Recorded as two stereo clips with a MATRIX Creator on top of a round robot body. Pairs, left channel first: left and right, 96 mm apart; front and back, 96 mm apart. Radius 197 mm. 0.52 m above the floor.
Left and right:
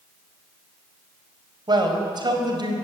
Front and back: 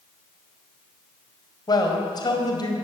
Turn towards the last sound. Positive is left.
turn(degrees=-45)